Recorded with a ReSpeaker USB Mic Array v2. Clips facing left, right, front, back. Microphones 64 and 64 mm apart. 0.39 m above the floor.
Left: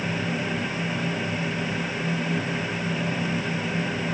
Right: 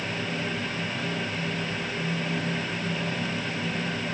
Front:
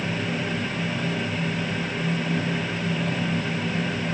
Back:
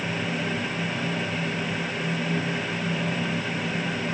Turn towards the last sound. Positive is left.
No sound to turn to.